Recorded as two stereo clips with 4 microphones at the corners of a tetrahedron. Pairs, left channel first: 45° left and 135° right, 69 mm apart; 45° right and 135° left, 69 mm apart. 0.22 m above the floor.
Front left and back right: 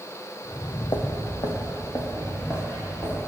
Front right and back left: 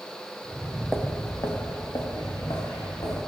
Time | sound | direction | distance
0.5 | footsteps | 90° left | 0.8 m